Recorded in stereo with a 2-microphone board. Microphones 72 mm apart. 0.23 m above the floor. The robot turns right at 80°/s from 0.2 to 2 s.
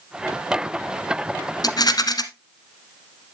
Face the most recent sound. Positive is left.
turn(degrees=65)  # may be behind; listen again after turning